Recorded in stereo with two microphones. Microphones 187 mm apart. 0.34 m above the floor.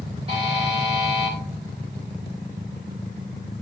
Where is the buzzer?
30° right (ahead or behind), 5.5 m.